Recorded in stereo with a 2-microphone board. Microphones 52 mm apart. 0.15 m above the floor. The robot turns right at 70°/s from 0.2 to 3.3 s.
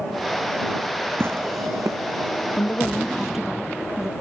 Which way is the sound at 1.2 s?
50° right (ahead or behind).